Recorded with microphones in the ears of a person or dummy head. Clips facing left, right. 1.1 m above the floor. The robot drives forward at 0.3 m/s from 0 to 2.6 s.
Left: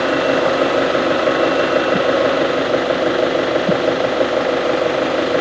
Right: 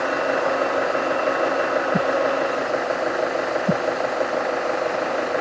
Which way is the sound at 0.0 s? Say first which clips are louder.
Left 7 dB; 50° left (ahead or behind).